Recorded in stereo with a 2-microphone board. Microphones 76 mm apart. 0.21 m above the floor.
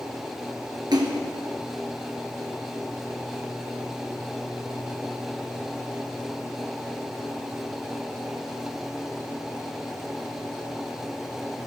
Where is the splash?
75° right (ahead or behind), 1.2 m.